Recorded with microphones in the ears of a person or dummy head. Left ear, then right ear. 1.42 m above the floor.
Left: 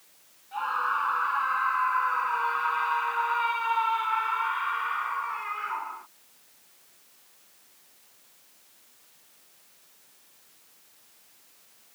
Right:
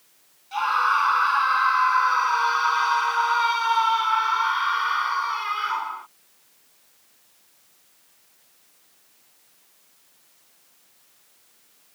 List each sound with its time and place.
0.5 s a scream: 75° right (ahead or behind); by 6.1 s 80° right